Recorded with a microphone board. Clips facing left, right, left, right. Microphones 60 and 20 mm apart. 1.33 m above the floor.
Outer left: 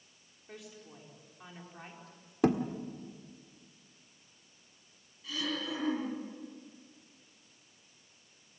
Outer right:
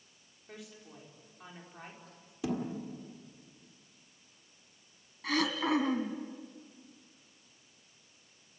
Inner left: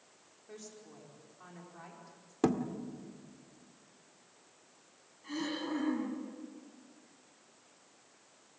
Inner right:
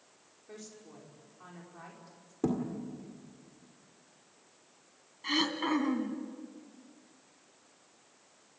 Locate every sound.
0.5 s a woman speaking: centre (ahead or behind), 4.5 m
2.4 s a thud: 50° left (ahead or behind), 1.7 m
5.2 s throat clearing: 65° right (ahead or behind), 2.5 m